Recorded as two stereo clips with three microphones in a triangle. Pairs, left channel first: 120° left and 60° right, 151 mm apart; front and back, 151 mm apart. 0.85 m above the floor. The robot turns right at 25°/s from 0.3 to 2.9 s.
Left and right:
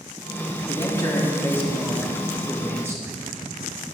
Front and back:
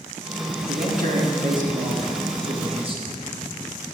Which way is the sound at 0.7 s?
175° left.